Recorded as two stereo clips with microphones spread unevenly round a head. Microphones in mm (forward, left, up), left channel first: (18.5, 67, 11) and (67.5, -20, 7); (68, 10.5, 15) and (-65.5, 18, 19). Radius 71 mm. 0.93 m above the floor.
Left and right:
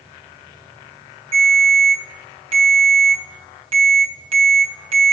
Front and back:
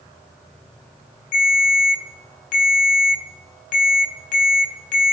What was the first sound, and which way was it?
A ringtone, 40° right.